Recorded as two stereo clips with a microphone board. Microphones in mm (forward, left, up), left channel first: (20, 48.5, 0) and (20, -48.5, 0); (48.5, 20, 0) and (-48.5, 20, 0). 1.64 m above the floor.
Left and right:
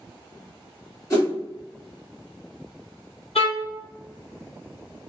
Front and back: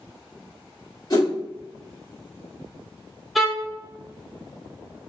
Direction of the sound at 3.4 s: 90° left.